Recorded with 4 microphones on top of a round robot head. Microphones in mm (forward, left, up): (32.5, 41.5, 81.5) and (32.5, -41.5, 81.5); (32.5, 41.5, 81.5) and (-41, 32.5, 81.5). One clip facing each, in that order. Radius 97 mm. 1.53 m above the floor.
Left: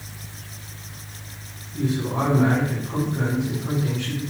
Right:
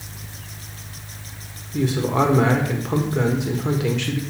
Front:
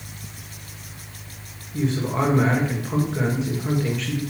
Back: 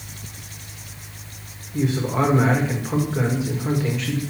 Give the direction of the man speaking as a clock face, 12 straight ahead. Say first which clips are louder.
Right 4 dB, back 2 dB; 3 o'clock.